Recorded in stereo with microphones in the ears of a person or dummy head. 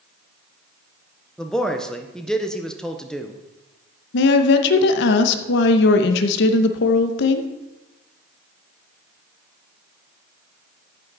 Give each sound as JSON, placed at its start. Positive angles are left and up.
{"t": 1.4, "sound": "a man speaking", "side_deg": 0, "distance_m": 0.8}
{"t": 4.1, "sound": "a woman speaking", "side_deg": 65, "distance_m": 0.9}